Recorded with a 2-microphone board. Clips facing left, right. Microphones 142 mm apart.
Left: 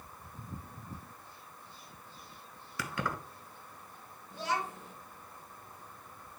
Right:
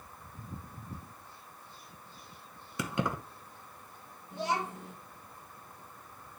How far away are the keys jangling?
About 1.0 m.